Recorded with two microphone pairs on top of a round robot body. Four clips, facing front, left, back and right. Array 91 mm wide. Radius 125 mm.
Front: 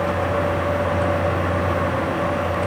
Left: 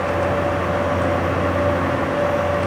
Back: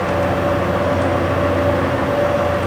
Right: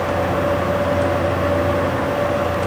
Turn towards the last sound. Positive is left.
No sound to turn to.